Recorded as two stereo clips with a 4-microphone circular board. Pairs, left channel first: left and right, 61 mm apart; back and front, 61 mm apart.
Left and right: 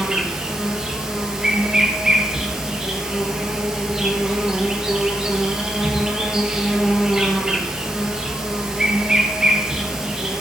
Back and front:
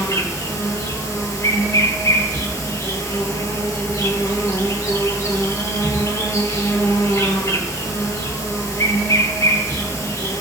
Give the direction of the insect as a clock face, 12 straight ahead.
5 o'clock.